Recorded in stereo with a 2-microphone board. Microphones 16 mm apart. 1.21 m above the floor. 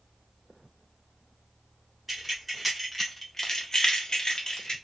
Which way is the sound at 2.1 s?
5° right (ahead or behind).